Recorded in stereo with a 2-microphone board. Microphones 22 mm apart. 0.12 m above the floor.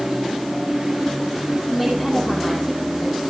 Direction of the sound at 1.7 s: 5° right (ahead or behind).